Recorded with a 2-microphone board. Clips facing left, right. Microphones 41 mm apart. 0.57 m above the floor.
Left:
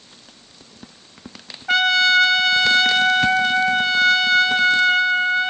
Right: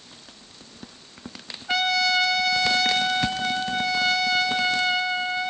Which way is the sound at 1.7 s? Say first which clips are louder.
Left 6 dB; 65° left (ahead or behind).